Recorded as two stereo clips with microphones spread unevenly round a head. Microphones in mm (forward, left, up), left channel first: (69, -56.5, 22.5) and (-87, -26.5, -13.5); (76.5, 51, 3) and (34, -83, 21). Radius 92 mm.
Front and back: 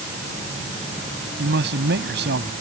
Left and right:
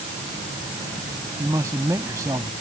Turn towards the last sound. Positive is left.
turn(degrees=180)